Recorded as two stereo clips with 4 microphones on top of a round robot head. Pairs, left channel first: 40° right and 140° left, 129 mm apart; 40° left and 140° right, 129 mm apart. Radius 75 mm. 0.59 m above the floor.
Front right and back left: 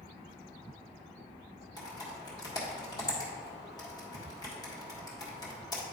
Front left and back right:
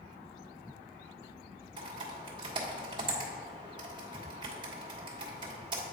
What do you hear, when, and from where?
1.8 s typing on a keyboard: 95° right, 1.6 m